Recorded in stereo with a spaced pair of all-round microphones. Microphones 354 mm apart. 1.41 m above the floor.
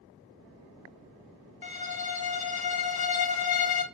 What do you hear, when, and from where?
1.6 s a violin: 75° left (ahead or behind), 0.6 m